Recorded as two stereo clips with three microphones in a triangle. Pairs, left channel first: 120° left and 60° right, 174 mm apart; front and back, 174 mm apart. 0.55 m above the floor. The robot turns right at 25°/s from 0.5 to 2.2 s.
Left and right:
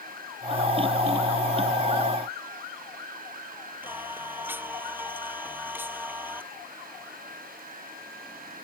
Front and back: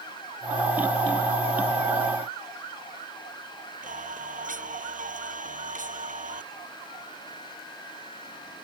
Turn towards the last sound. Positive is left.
turn(degrees=-140)